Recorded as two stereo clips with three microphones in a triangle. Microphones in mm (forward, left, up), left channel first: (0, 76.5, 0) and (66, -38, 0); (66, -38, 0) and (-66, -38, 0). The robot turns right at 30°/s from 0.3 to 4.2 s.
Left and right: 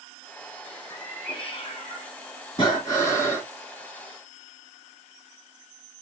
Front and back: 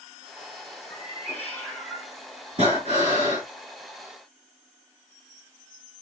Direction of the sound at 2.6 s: 170° left.